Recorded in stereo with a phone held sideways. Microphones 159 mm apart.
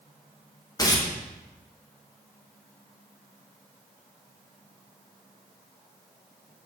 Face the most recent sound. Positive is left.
turn(degrees=25)  # may be behind; listen again after turning